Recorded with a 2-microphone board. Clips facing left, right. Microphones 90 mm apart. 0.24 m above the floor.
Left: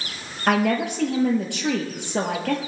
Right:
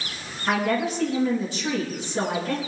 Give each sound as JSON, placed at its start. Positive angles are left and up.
{"t": 0.5, "sound": "a woman speaking", "side_deg": 75, "distance_m": 4.5}